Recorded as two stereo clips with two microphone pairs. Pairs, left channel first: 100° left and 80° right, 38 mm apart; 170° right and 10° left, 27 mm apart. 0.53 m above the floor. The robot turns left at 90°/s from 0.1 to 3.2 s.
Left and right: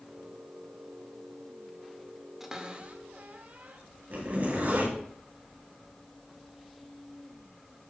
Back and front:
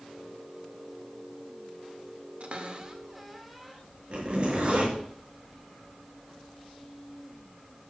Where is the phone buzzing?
No phone buzzing in this recording.